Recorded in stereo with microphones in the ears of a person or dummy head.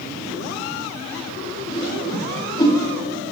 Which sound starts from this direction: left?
A whoosh, at 1.7 s.